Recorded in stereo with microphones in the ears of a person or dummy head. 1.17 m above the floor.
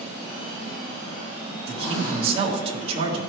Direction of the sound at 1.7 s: 30° right (ahead or behind).